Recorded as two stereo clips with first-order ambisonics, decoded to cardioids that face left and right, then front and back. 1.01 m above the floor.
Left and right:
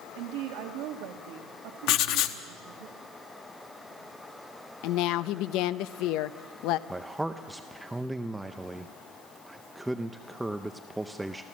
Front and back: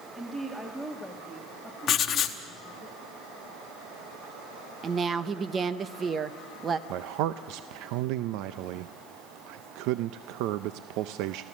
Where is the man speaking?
175° right, 0.6 m.